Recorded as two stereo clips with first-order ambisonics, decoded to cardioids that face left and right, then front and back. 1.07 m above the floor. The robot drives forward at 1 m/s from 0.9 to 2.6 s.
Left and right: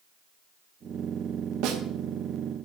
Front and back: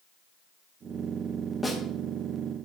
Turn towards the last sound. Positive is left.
turn(degrees=-130)